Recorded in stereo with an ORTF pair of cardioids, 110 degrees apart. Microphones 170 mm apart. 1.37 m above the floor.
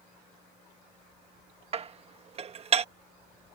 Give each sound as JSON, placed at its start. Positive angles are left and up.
{"t": 1.7, "sound": "dishes clattering", "azimuth_deg": -40}